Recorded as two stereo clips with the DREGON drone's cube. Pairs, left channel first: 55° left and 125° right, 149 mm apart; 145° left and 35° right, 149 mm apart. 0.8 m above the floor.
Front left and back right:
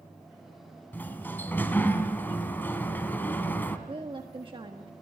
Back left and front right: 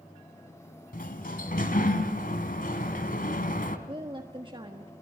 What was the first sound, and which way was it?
A sliding door, 135° left.